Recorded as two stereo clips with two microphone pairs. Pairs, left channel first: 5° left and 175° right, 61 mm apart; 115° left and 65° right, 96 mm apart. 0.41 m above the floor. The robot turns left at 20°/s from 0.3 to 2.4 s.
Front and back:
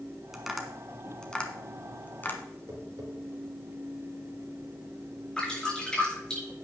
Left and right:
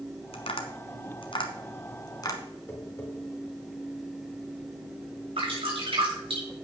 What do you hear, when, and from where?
0.3 s tapping: 100° left, 1.4 m; by 2.4 s 60° left, 1.4 m
2.7 s tapping: 175° right, 4 m
5.4 s dripping: 70° right, 5.5 m